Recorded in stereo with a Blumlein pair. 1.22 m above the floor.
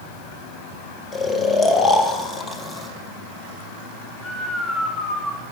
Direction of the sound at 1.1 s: 20° left.